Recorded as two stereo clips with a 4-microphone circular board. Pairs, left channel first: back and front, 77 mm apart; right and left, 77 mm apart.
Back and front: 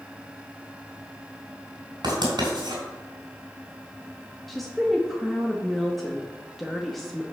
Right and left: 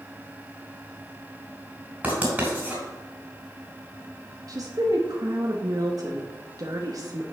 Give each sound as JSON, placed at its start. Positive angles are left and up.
{"t": 2.0, "sound": "writing", "azimuth_deg": 20, "distance_m": 4.0}
{"t": 4.5, "sound": "a woman speaking", "azimuth_deg": 90, "distance_m": 0.9}